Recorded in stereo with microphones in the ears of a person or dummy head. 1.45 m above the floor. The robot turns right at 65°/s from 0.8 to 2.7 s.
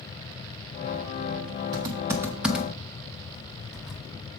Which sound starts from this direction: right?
Typing on a keyboard, at 1.7 s.